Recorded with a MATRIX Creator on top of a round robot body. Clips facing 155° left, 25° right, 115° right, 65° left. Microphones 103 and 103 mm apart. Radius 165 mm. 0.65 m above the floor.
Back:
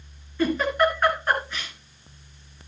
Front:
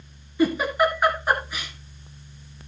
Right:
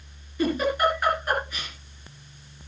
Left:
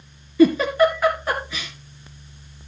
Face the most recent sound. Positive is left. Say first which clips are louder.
# front 1 dB, left 8 dB
turn(degrees=60)